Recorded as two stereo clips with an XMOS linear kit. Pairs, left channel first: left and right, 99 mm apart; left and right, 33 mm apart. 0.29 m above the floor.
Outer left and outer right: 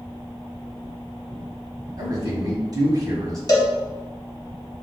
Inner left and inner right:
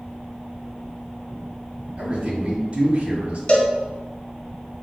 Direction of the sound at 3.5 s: 40° left (ahead or behind).